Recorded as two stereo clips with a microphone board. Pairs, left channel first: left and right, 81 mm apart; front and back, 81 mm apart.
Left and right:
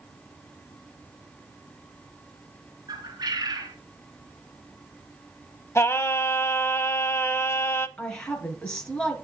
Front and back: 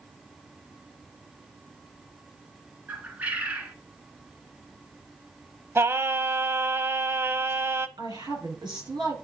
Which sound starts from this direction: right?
A bird, at 2.9 s.